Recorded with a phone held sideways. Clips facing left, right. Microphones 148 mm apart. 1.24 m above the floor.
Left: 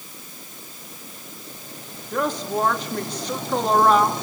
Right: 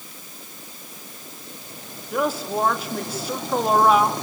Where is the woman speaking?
5° right (ahead or behind), 2.5 m.